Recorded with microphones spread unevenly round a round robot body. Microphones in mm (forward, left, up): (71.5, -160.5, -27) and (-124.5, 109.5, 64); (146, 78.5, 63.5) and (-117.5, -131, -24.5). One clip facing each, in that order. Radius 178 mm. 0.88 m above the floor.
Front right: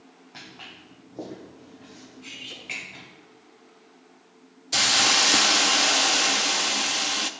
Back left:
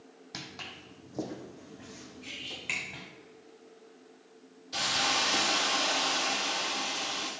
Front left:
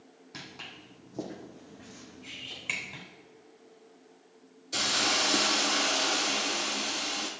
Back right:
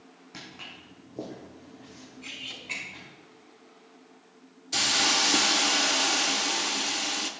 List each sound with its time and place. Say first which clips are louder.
0.3 s footsteps: back left 2 dB, back right 1 dB; 120° left, 1.8 m; by 3.0 s 70° left, 3 m
2.2 s cutlery clinking: front right 2 dB, back right 2 dB; 145° right, 4.5 m
4.7 s a hiss: front right 6 dB, back right 1 dB; 65° right, 0.7 m